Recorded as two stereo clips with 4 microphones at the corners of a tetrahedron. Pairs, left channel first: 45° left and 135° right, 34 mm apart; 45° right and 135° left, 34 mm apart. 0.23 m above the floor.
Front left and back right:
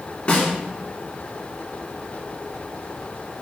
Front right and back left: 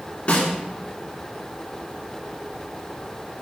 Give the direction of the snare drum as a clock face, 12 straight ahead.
12 o'clock.